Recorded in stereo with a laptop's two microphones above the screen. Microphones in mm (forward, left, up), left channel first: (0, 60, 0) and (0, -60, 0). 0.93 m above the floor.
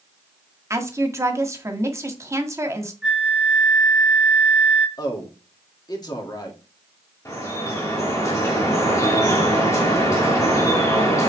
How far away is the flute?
About 1.8 m.